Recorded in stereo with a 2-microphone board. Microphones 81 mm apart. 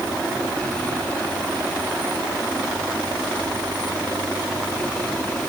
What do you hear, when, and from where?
Only background noise.